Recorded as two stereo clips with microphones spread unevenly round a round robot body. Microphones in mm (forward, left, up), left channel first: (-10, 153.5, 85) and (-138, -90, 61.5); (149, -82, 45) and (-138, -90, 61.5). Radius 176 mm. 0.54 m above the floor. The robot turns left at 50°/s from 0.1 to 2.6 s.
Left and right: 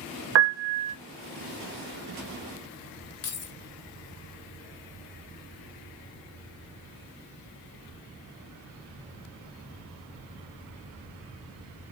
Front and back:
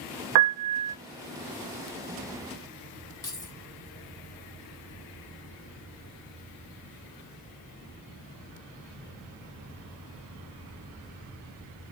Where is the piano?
155° right, 0.6 m; by 0.9 s 175° left, 0.6 m.